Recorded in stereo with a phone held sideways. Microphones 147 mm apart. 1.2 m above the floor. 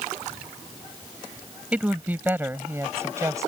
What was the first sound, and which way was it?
A woman speaking, 10° right (ahead or behind).